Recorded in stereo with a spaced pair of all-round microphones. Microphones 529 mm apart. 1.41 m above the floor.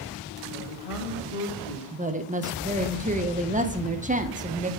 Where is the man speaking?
80° left, 2 m.